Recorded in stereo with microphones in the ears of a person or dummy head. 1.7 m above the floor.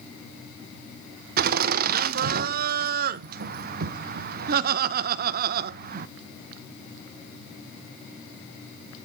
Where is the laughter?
55° right (ahead or behind), 0.5 m.